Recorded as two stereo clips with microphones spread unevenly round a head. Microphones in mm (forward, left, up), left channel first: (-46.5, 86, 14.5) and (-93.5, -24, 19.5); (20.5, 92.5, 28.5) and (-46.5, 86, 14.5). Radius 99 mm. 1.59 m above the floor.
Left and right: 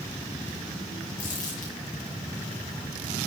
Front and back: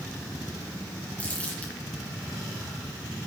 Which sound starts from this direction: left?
Crumpling, at 1.2 s.